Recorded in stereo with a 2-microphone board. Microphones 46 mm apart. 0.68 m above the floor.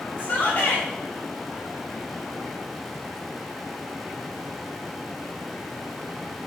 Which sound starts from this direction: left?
A shout, at 0.2 s.